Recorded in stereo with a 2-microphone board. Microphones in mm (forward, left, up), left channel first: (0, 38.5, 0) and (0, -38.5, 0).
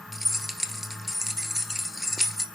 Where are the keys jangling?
Centre (ahead or behind), 1.4 m.